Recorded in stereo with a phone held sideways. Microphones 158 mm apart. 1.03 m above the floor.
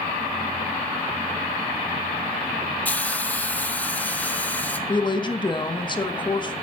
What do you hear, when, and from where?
2.9 s a hiss: 10° left (ahead or behind), 1.0 m
4.9 s a woman speaking: 30° left (ahead or behind), 1.2 m